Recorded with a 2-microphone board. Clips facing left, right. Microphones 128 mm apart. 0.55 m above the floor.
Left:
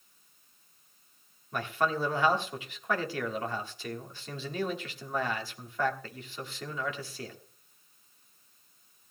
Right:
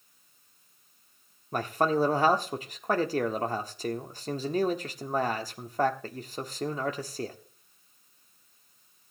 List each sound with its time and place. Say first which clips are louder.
1.5 s a man speaking: right 4 dB; 40° right (ahead or behind), 1.3 m